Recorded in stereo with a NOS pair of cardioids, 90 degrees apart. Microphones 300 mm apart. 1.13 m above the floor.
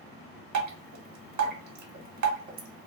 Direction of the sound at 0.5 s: 70° right.